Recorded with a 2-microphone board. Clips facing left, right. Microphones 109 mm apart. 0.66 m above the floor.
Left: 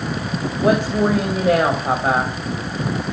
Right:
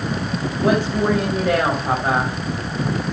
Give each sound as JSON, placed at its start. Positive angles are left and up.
{"t": 0.6, "sound": "a woman speaking", "side_deg": 20, "distance_m": 4.0}